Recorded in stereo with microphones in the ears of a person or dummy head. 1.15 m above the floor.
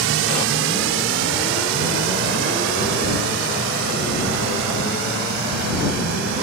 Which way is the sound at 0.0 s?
60° right (ahead or behind).